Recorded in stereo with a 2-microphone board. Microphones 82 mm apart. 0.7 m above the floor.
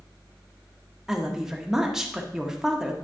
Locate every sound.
1.1 s a woman speaking: 5° right (ahead or behind), 1.3 m